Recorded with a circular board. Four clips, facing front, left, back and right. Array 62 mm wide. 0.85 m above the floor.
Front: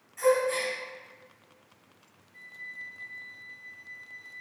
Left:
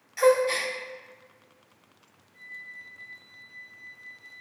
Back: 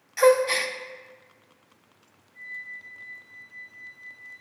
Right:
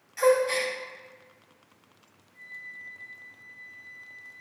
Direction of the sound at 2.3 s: 5° left.